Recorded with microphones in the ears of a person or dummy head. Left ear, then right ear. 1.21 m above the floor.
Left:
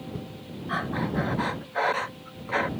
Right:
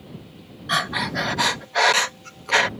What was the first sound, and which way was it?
Breathing, 70° right (ahead or behind).